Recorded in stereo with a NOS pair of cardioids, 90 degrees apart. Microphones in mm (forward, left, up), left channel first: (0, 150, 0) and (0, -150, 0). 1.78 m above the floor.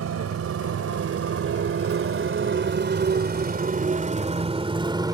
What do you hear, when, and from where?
0.0 s a motorcycle: 60° right; by 5.2 s 15° right